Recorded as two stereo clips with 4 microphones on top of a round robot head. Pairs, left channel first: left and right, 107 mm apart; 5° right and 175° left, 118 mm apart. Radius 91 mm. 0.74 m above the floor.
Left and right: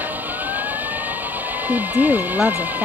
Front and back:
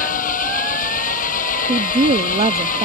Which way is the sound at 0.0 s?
10° right.